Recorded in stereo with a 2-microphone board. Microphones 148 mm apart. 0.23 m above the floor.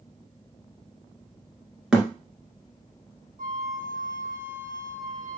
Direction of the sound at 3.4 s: 65° right (ahead or behind).